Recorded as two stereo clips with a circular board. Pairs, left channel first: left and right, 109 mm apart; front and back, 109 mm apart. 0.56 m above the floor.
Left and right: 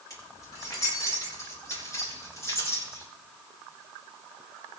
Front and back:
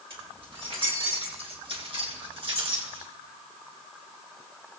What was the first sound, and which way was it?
Keys jangling, 150° left.